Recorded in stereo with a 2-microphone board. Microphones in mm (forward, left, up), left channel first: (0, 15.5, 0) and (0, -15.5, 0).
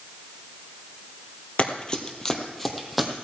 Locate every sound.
1.6 s running footsteps: 35° left (ahead or behind), 1.7 m; by 3.1 s 5° right (ahead or behind), 2.5 m